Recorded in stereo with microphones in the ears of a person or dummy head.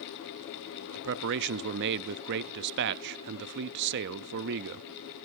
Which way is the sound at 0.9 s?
60° right (ahead or behind).